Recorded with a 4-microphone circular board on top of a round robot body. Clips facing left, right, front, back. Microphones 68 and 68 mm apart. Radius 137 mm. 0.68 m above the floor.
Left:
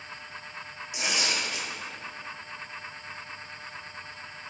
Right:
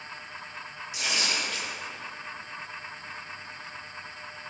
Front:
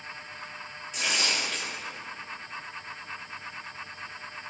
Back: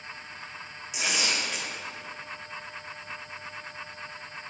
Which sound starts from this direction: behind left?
Tearing paper, at 0.9 s.